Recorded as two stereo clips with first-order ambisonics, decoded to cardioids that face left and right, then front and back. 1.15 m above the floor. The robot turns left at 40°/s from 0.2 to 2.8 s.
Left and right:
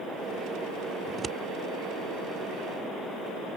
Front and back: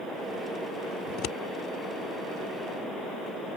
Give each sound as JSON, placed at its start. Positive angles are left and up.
{"t": 1.1, "sound": "scissors", "azimuth_deg": -15}